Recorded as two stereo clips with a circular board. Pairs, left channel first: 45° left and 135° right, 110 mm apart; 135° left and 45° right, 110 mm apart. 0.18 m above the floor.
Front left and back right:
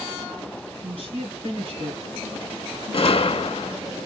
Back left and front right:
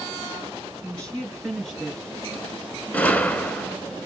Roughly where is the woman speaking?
Behind right.